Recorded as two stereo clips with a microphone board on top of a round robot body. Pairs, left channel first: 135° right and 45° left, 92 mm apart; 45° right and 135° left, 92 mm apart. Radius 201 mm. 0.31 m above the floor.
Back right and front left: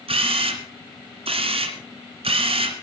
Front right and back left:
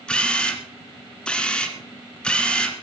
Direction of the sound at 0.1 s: 35° left.